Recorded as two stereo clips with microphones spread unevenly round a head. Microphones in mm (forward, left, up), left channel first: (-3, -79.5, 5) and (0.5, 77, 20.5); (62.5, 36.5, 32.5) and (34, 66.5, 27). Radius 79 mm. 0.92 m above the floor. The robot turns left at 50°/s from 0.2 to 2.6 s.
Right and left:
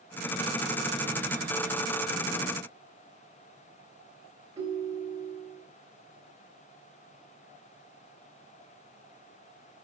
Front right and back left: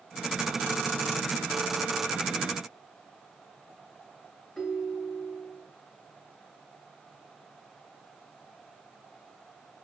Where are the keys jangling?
I don't hear keys jangling.